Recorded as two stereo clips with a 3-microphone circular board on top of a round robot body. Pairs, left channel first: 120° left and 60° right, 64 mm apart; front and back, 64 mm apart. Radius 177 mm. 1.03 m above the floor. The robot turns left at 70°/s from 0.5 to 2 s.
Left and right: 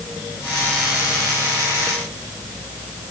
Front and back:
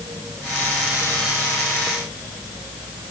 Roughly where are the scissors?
No scissors in this recording.